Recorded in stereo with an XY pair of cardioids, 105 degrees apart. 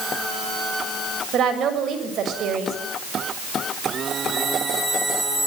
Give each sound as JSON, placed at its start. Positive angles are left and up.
{"t": 1.3, "sound": "a woman speaking", "azimuth_deg": -65, "distance_m": 6.5}